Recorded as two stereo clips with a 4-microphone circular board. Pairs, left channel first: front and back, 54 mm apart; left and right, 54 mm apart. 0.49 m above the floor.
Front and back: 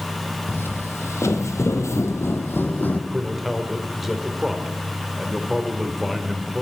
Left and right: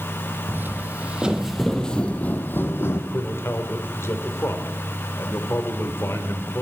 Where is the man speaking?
95° left, 1.6 m.